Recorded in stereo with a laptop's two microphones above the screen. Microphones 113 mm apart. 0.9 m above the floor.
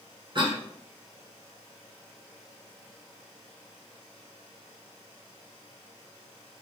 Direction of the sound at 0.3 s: 45° right (ahead or behind).